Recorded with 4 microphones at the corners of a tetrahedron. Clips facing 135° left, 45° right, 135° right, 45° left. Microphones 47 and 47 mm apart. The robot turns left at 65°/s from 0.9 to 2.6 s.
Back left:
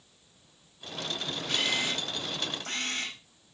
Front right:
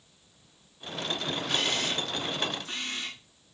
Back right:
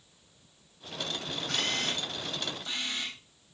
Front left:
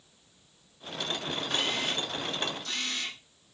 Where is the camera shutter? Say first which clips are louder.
Back left 1 dB, even; 135° right, 7.5 m; by 3.2 s 150° left, 7.5 m.